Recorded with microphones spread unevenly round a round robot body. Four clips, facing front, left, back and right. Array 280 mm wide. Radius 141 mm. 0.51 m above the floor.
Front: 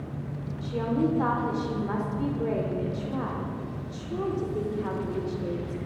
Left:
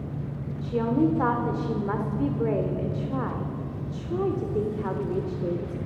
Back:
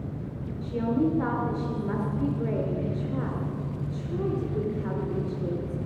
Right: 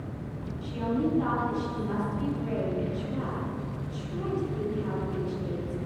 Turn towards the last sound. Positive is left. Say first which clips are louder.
# left 5 dB, back 1 dB
turn(degrees=90)